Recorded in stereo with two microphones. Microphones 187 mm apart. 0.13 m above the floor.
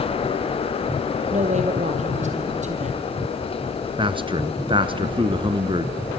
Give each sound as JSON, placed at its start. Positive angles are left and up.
{"t": 1.3, "sound": "a woman speaking", "side_deg": -40, "distance_m": 3.0}
{"t": 4.0, "sound": "a man speaking", "side_deg": -25, "distance_m": 1.5}